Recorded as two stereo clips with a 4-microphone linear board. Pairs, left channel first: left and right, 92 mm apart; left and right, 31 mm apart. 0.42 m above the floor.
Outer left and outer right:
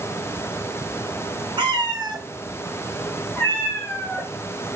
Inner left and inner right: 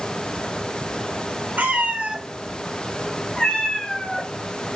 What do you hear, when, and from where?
1.6 s a cat meowing: 65° right (ahead or behind), 0.7 m; by 4.3 s 40° left (ahead or behind), 1.1 m